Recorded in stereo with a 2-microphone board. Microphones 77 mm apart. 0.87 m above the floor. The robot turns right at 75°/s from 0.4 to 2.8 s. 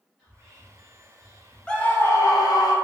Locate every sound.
0.2 s whispering: 10° right, 0.9 m; by 1.6 s 80° left, 0.9 m
1.7 s a scream: 10° left, 0.6 m; by 2.7 s 90° left, 0.6 m